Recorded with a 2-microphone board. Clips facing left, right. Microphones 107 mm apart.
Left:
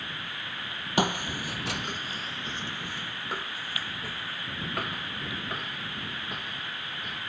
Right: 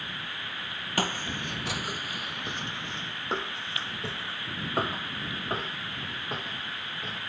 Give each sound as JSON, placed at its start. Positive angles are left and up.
{"t": 1.0, "sound": "footsteps", "side_deg": 20}